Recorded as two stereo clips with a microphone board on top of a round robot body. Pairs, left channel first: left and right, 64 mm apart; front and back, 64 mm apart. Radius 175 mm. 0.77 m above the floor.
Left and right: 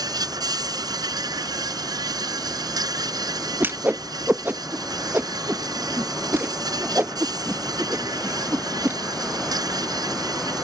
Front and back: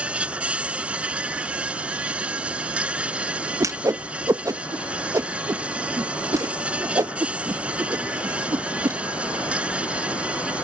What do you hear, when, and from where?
0.0 s an insect: 105° right
3.6 s a whoosh: 145° right